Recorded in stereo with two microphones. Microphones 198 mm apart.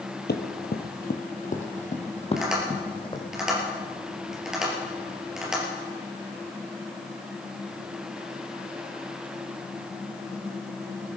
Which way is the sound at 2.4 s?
Centre (ahead or behind).